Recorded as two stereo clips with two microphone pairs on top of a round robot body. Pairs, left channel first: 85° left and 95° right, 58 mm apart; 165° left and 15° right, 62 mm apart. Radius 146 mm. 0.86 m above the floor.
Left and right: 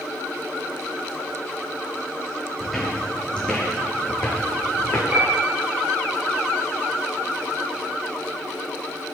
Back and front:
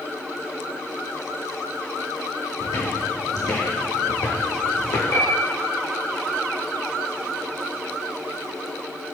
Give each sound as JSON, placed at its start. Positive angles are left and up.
{"t": 2.6, "sound": "footsteps", "azimuth_deg": 170, "distance_m": 3.0}
{"t": 5.1, "sound": "a piano", "azimuth_deg": -150, "distance_m": 5.5}